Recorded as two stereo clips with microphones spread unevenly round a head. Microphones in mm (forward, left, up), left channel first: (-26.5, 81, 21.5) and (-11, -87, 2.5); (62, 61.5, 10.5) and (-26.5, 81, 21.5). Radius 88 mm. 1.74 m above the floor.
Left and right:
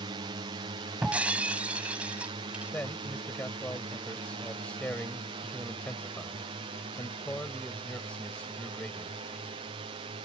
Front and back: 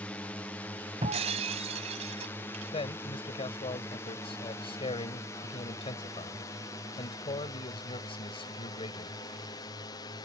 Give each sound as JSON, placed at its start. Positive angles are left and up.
{"t": 0.0, "sound": "a drone", "azimuth_deg": -70}
{"t": 1.0, "sound": "breaking glass", "azimuth_deg": -170}
{"t": 2.7, "sound": "a man speaking", "azimuth_deg": 10}